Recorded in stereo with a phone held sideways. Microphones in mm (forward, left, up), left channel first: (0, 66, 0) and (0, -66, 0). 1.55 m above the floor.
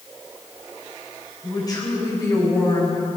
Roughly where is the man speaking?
Left.